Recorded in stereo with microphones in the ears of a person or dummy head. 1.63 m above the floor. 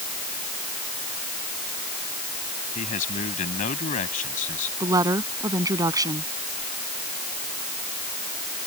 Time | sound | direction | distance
2.8 | a man speaking | 50° left (ahead or behind) | ?
4.8 | a woman speaking | 20° right (ahead or behind) | ?